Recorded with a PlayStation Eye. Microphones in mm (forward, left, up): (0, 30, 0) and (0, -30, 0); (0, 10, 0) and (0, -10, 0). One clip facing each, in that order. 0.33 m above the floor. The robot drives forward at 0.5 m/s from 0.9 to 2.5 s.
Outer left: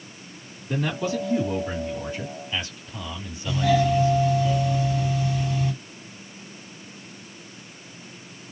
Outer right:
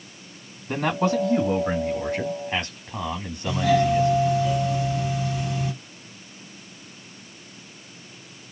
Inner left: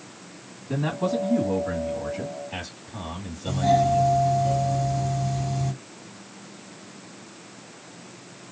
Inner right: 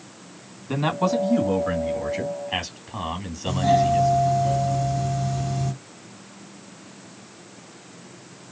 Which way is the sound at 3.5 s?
Centre (ahead or behind).